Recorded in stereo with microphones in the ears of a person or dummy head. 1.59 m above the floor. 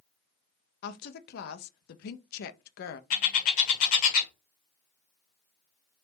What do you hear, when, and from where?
0.8 s a woman speaking: 60° left (ahead or behind), 0.6 m
3.1 s a bird: 50° left (ahead or behind), 1.1 m